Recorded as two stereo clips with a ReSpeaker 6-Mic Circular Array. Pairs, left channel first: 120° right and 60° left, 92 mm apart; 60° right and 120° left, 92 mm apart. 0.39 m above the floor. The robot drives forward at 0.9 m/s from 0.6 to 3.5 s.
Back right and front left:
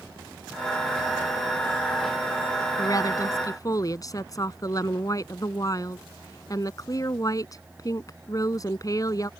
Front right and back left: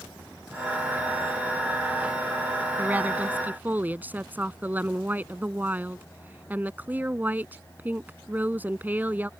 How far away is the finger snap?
No finger snap in this recording.